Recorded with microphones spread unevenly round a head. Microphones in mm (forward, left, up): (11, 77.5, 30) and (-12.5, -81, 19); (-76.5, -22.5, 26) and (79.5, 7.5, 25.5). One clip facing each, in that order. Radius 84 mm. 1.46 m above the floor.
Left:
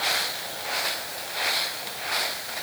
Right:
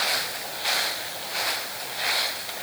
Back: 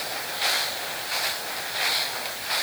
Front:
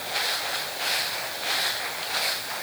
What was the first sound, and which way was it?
Only background noise.